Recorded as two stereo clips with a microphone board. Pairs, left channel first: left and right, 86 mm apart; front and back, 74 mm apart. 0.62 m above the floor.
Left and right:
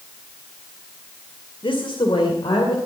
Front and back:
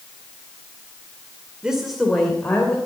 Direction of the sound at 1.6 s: 100° left.